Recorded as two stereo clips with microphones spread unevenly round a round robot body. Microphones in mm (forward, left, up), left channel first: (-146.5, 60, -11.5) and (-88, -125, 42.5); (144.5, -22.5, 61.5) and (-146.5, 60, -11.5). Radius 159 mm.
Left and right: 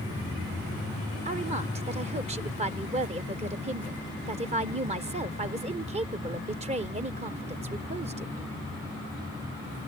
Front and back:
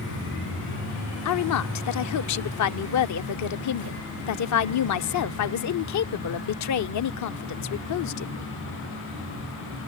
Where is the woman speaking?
5° right.